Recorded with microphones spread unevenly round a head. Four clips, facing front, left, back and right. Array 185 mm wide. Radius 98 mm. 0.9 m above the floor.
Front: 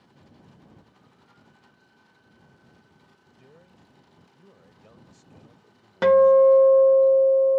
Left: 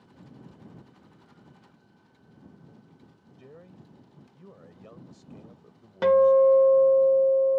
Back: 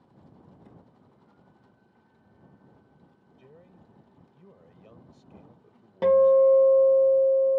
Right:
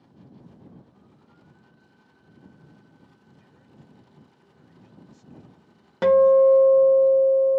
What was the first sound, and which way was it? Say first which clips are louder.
A man speaking: left 8 dB, back 1 dB; 95° left.